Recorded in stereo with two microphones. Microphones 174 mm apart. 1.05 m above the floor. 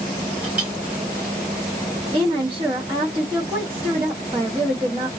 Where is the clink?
10° right (ahead or behind), 1.5 m.